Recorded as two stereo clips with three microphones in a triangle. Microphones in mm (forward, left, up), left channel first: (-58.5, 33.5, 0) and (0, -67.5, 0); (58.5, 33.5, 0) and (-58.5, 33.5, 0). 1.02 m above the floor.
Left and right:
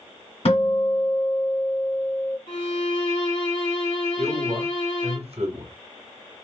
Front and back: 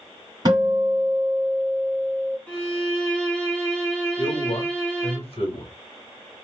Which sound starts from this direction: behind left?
A guitar, at 0.5 s.